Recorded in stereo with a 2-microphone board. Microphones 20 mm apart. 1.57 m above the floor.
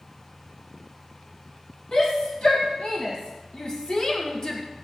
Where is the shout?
55° left (ahead or behind), 2.5 m; by 4.6 s 30° left (ahead or behind), 1.5 m.